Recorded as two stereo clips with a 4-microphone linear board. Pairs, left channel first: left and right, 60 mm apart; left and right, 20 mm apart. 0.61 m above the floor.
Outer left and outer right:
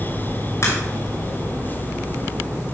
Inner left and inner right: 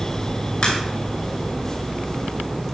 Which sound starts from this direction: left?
A crack, at 0.6 s.